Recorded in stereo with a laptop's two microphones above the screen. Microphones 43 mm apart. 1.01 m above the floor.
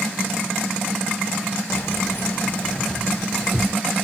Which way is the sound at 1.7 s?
75° left (ahead or behind).